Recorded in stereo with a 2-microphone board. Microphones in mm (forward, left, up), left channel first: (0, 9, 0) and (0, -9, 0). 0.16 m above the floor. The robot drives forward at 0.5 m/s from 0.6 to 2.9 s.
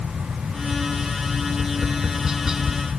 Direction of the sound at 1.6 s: 25° right (ahead or behind).